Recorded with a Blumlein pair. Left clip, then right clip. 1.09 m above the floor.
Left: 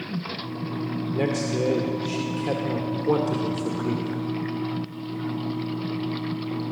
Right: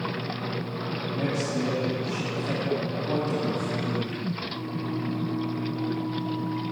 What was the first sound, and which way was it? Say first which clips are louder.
A man speaking: left 4 dB; 60° left.